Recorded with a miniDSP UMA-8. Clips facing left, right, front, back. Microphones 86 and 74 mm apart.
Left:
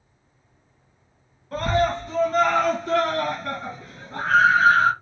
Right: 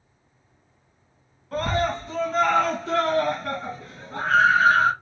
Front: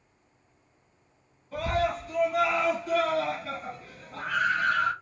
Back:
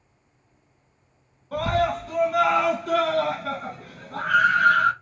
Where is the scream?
175° left, 1.5 m.